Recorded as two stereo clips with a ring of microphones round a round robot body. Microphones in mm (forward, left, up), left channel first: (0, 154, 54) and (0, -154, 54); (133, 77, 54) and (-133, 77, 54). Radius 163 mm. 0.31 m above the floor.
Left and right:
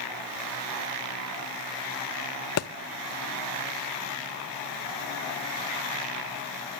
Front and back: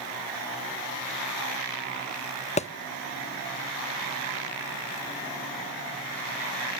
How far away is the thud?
About 0.7 m.